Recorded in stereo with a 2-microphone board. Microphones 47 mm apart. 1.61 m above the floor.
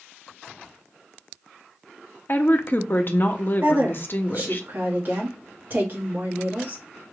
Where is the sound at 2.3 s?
45° left (ahead or behind), 0.7 m.